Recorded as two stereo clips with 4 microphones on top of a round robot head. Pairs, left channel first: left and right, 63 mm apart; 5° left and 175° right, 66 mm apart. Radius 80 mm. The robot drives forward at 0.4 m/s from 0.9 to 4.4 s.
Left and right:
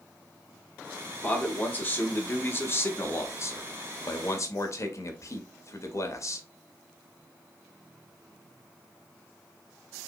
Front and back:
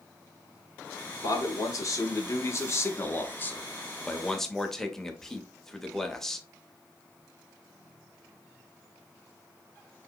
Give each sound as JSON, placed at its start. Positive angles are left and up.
{"t": 1.2, "sound": "a man speaking", "azimuth_deg": 25, "distance_m": 1.6}